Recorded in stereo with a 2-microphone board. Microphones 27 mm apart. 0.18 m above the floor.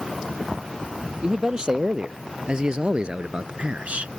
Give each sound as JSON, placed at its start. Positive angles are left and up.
{"t": 1.2, "sound": "a man speaking", "side_deg": -30}